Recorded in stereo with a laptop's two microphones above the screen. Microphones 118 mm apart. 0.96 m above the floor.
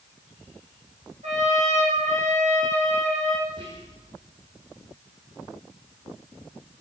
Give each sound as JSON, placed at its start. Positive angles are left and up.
{"t": 1.2, "sound": "a trumpet", "side_deg": -70, "distance_m": 6.5}
{"t": 3.5, "sound": "whispering", "side_deg": -45, "distance_m": 3.5}